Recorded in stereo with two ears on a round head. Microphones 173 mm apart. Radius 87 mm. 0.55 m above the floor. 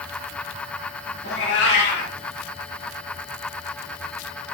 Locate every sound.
1.2 s a cat meowing: 65° left (ahead or behind), 1.0 m